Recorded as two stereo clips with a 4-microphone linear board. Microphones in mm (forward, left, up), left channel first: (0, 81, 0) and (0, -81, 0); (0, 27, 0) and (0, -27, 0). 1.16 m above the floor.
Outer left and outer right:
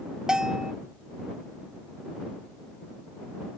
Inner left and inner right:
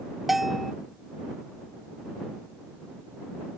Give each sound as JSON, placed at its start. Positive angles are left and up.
{"t": 0.3, "sound": "a bell", "side_deg": -5}